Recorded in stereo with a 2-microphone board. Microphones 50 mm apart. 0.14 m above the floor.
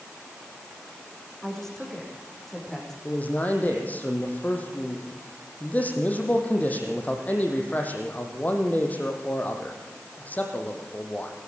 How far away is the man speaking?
About 4.5 m.